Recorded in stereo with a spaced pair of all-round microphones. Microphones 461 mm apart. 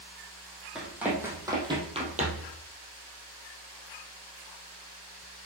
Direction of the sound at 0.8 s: Centre (ahead or behind).